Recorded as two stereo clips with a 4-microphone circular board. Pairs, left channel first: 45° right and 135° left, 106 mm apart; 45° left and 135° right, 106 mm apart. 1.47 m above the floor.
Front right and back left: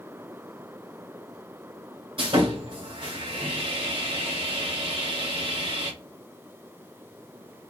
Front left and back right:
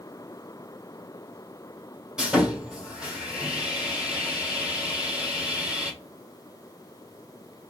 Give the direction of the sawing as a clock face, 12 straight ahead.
7 o'clock.